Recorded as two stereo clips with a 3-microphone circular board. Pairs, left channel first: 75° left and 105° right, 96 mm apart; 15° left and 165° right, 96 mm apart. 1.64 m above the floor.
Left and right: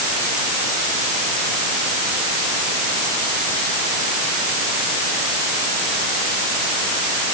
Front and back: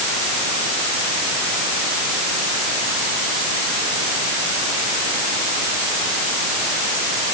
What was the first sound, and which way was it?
Only background noise.